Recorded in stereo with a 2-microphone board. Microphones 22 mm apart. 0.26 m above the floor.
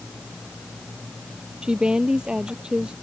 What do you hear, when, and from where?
1.6 s a woman speaking: 40° right (ahead or behind)